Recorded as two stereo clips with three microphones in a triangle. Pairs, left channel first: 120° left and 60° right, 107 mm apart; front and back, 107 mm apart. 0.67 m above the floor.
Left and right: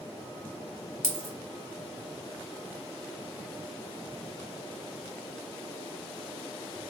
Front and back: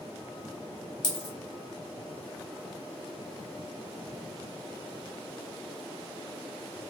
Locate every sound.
1.0 s a dropped coin: 40° left, 0.7 m